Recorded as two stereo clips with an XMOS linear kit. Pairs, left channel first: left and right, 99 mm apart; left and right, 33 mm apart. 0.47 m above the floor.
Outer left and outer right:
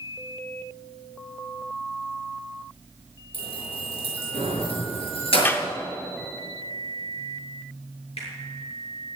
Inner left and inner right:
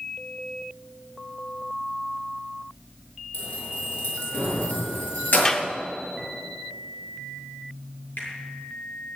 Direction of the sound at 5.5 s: 20° left (ahead or behind).